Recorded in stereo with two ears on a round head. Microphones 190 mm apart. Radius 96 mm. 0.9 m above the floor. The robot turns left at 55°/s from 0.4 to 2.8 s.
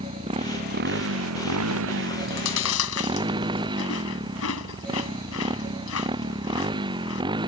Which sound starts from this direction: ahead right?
A motorcycle, at 0.0 s.